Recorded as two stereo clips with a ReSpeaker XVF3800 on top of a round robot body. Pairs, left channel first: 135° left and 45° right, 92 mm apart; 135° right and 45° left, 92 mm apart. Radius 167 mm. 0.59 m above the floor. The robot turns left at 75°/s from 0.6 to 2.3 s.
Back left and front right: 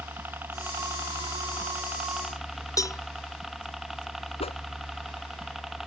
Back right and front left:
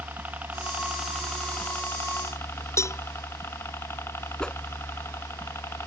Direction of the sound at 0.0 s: 5° right.